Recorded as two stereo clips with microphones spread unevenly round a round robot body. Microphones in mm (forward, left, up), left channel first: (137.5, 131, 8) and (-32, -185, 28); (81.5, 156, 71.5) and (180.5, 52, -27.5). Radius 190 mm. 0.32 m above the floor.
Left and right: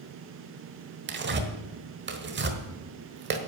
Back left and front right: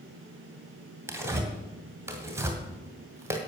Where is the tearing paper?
60° right, 1.6 m.